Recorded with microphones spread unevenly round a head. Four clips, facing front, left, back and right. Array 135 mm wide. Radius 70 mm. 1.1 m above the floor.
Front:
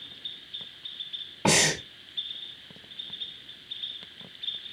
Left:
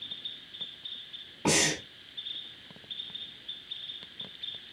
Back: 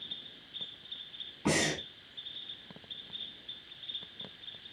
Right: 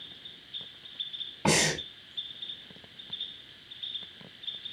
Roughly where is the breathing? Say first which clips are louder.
Right 1 dB, front 5 dB; ahead.